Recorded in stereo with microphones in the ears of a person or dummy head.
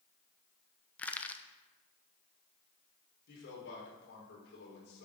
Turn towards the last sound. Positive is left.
turn(degrees=65)  # may be behind; listen again after turning